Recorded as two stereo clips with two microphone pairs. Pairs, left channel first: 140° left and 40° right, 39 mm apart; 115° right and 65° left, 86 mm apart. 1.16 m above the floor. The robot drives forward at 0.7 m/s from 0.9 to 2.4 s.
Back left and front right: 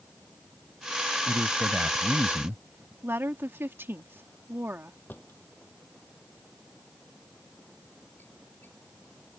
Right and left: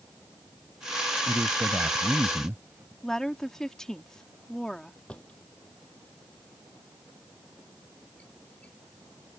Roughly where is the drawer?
Behind.